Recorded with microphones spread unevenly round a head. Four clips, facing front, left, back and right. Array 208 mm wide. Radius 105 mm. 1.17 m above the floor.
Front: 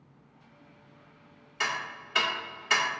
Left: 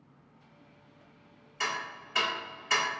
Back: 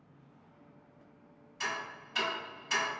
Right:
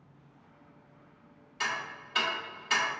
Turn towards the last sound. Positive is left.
turn(degrees=-10)